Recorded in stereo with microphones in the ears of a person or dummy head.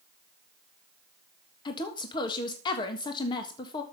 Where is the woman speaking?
25° left (ahead or behind), 1.5 m.